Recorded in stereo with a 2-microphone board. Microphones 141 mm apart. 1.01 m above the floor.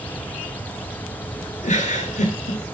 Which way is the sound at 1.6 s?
60° left (ahead or behind).